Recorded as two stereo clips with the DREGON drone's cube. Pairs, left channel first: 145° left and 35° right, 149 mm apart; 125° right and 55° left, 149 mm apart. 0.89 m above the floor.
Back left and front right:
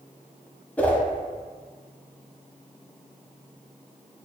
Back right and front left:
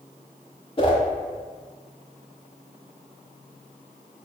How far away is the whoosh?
About 0.8 m.